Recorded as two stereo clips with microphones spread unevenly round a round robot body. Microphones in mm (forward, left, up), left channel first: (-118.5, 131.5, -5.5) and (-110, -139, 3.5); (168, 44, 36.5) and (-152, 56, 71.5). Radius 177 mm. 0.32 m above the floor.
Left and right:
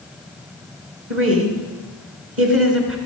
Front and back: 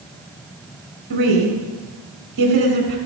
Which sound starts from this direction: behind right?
A woman speaking, at 1.1 s.